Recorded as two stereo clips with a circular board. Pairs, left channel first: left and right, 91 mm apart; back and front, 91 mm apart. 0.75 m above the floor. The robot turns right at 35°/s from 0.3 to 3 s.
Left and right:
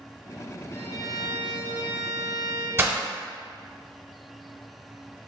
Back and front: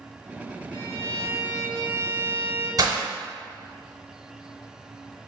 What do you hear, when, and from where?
0.7 s a violin: 35° left, 1.4 m; by 2.7 s 105° left, 1.4 m
2.8 s breaking glass: 35° right, 0.7 m; by 3.0 s 25° right, 0.7 m